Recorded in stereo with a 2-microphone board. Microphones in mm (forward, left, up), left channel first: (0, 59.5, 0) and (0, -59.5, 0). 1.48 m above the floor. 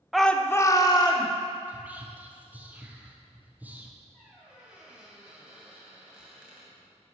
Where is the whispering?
15° right (ahead or behind), 1.3 m.